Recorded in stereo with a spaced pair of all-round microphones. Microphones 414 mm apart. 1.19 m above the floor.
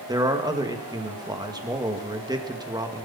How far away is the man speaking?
About 1.9 m.